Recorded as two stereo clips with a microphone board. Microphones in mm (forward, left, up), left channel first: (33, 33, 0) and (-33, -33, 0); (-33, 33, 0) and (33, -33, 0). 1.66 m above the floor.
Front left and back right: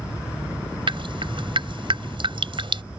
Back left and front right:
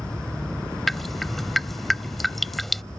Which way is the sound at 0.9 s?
135° right.